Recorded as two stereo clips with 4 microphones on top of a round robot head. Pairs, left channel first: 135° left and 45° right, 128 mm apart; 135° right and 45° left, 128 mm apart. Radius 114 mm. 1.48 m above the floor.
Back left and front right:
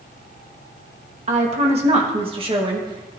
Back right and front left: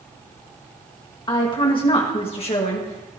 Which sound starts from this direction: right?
A woman speaking, at 1.3 s.